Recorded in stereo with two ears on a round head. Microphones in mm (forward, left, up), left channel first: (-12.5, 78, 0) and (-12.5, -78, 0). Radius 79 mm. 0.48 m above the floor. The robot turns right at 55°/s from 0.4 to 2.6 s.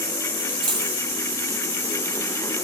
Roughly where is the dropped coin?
Right.